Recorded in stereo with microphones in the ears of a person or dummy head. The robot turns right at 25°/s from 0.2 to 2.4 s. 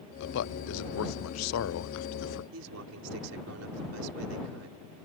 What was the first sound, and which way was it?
A man speaking, 65° left (ahead or behind).